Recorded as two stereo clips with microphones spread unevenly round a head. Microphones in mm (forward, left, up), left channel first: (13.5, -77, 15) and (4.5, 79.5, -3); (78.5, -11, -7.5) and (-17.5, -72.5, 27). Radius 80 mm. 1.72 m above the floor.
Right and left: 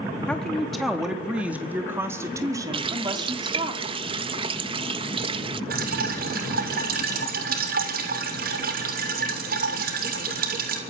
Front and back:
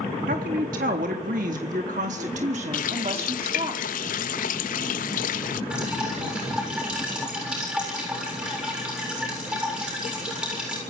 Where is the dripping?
130° left, 7 m.